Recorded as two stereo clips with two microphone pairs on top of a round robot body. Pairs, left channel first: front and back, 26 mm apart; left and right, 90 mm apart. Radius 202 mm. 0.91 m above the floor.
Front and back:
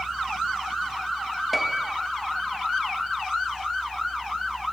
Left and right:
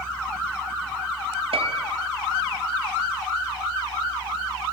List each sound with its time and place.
1.5 s a piano: 90° right, 1.6 m